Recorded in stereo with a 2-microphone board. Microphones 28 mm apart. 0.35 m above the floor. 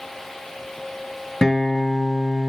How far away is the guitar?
About 2.5 m.